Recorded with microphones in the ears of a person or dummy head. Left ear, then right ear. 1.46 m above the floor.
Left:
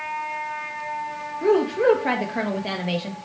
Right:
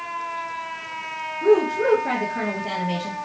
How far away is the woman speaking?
About 0.6 m.